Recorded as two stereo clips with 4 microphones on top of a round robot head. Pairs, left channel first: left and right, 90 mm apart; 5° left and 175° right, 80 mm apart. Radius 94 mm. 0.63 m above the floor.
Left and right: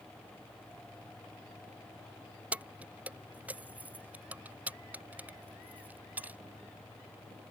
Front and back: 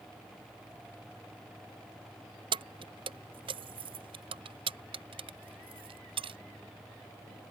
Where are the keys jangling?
165° right.